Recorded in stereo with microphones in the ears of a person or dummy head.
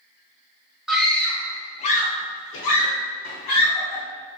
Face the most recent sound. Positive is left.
turn(degrees=65)  # may be behind; listen again after turning